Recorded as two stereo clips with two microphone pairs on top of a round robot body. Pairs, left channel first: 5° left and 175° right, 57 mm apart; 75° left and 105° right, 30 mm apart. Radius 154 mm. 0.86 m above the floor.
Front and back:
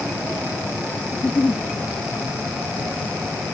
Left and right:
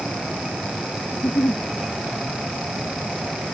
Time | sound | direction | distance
1.1 | a giggle | 75° left | ?